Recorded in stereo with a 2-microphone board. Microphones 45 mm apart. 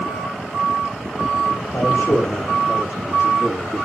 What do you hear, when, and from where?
1.7 s a man speaking: 75° left (ahead or behind), 5 m; by 3.9 s 60° left (ahead or behind), 5 m